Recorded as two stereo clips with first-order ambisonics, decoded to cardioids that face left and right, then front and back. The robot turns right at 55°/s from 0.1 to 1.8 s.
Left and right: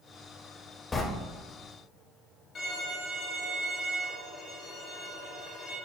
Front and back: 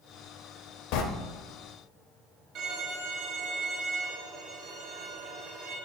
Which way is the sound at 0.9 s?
15° left.